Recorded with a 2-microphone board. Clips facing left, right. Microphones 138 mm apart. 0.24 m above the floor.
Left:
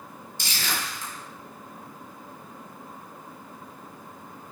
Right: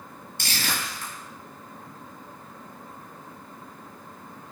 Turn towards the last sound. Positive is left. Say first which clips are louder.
# right 1 dB
turn(degrees=-65)  # may be behind; listen again after turning